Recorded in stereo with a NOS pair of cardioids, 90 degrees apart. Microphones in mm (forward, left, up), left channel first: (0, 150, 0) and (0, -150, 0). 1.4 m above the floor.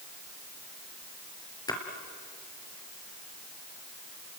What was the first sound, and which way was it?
A splash, 15° left.